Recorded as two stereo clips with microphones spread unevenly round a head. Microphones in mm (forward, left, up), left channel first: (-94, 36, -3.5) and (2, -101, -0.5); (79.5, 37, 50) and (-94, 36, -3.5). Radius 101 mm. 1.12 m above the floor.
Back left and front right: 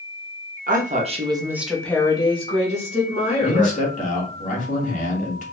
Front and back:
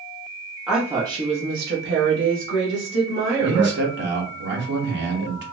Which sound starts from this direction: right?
A woman speaking, at 0.7 s.